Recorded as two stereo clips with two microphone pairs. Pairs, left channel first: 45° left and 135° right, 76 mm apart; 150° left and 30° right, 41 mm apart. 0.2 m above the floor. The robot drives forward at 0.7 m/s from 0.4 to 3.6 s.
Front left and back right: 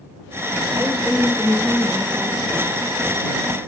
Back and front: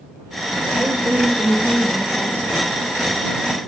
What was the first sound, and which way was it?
A woman speaking, 50° right.